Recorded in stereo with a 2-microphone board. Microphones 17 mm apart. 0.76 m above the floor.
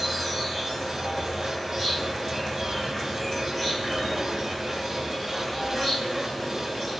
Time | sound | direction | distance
0.0 | an insect | 5° left (ahead or behind) | 3.5 m